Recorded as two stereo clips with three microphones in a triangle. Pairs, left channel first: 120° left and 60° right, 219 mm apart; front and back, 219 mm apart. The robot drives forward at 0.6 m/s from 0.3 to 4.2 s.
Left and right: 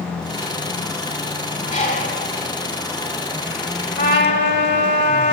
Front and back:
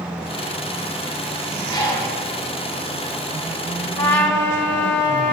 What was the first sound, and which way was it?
A bird, 65° left.